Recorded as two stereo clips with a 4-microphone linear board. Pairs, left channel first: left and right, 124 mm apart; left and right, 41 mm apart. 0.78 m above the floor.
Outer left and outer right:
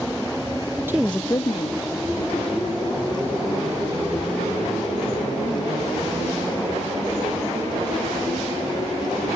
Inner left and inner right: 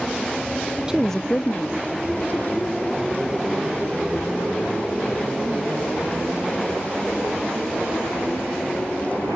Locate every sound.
0.9 s a woman speaking: 20° right (ahead or behind), 0.6 m; by 6.5 s 60° left (ahead or behind), 7.5 m